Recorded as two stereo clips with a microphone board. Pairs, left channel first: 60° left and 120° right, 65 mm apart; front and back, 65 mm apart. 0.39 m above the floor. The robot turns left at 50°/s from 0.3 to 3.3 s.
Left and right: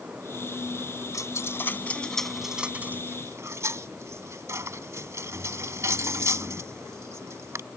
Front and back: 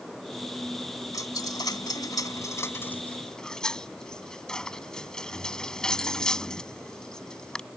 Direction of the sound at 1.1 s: 30° left.